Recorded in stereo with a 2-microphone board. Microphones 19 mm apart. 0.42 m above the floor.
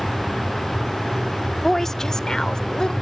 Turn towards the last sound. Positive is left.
turn(degrees=50)  # may be behind; listen again after turning